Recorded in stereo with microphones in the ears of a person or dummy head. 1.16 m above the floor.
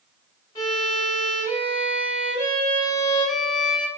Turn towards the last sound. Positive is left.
turn(degrees=20)  # may be behind; listen again after turning